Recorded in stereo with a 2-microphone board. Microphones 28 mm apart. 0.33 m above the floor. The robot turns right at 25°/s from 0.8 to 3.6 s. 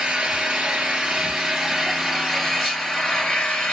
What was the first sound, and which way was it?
An engine running, 35° right.